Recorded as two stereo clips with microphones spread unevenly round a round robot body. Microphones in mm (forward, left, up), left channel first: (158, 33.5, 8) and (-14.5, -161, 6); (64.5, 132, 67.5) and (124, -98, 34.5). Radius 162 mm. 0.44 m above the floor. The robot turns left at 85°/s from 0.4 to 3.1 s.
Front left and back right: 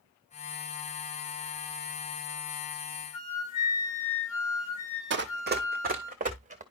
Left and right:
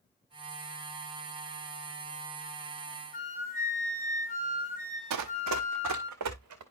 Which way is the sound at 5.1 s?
90° right.